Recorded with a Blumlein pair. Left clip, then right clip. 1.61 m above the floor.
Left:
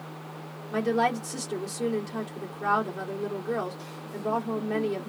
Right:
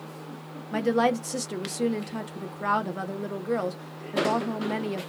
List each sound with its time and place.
0.7 s a woman speaking: 15° right, 1.1 m